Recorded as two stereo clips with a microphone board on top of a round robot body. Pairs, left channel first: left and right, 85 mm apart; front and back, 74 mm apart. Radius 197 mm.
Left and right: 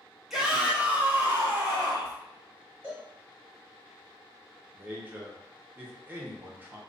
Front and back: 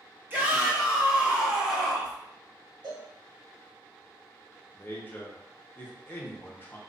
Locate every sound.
0.3 s a shout: 175° right, 1.3 m; by 2.2 s 95° right, 1.6 m
2.8 s a cowbell: 160° right, 0.9 m
4.7 s a man speaking: 40° right, 1.0 m